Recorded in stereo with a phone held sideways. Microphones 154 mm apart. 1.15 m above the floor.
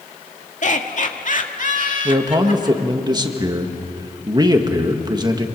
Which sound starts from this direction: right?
A man speaking, at 2.0 s.